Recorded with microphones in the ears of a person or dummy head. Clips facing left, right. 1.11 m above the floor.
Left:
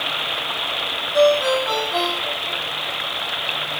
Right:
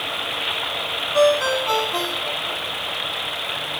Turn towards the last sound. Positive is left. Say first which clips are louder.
# left 2 dB
turn(degrees=-10)  # may be behind; listen again after turning